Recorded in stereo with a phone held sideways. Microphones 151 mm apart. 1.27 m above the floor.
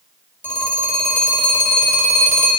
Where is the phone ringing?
10° left (ahead or behind), 1.3 m.